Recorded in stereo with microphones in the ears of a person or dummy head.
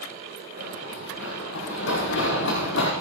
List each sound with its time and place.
0.6 s running footsteps: 80° left, 6.5 m; by 2.9 s 70° left (ahead or behind), 5 m